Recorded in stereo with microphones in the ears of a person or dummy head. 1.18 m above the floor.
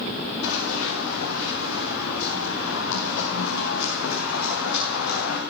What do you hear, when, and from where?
0.4 s running footsteps: 80° left, 7.5 m; by 5.4 s 65° left (ahead or behind), 6.5 m